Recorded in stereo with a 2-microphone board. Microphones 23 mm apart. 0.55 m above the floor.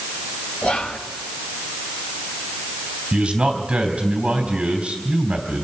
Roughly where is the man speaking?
Right.